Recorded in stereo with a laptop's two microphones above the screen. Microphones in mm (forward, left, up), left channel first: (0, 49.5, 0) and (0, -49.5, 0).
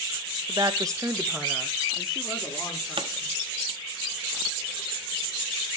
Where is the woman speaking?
35° right (ahead or behind), 0.7 m; by 3.4 s centre (ahead or behind), 3.5 m.